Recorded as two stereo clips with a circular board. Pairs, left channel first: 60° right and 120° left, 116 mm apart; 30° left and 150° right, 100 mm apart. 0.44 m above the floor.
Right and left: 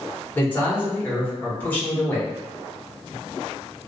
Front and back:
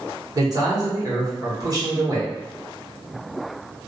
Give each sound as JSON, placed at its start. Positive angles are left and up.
{"t": 0.3, "sound": "a man speaking", "azimuth_deg": -125, "distance_m": 1.0}